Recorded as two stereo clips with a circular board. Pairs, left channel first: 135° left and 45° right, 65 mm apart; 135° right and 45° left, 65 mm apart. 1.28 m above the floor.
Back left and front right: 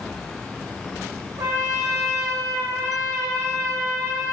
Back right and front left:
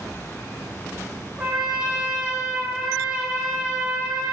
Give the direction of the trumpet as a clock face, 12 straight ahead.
1 o'clock.